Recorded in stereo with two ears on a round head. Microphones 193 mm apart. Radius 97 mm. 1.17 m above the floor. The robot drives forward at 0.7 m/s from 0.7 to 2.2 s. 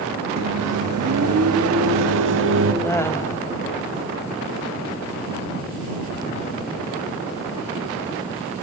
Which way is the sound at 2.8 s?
15° left (ahead or behind).